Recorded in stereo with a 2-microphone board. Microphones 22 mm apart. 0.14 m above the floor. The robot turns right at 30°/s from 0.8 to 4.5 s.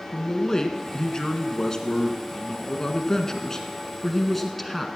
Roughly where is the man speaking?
Ahead left.